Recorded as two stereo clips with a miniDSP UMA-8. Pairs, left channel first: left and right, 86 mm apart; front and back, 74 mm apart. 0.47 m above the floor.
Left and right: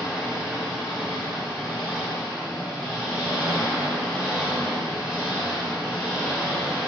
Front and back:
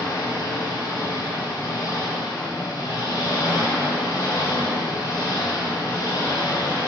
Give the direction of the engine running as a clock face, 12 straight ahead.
12 o'clock.